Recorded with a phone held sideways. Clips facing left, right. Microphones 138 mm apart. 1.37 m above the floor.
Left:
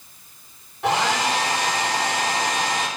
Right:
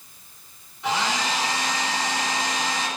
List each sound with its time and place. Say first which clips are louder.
0.8 s a hair dryer: left 4 dB; 80° left, 3.5 m